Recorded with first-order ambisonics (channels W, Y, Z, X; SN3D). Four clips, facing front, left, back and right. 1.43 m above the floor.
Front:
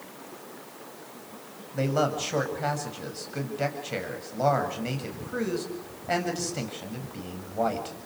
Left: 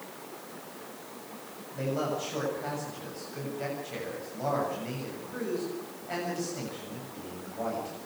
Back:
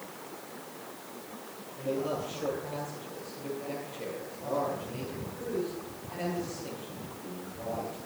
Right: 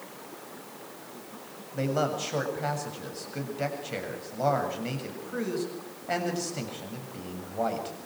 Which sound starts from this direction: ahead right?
A man speaking, at 1.7 s.